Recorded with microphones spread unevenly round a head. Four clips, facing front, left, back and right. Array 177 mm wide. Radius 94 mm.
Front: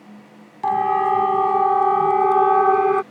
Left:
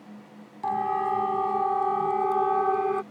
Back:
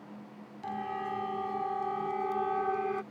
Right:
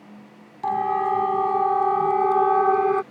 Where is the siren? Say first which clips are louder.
Right 4 dB, front 18 dB; 15° right; by 3.0 s 25° right.